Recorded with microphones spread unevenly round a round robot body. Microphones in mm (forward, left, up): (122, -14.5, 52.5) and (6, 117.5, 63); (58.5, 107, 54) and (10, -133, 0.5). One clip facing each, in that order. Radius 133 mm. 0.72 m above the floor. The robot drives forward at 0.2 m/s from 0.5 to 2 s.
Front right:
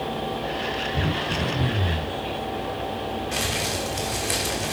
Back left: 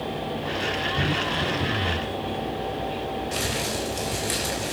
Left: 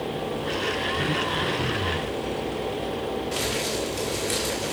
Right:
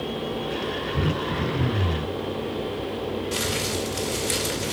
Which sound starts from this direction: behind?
Crumpling, at 3.3 s.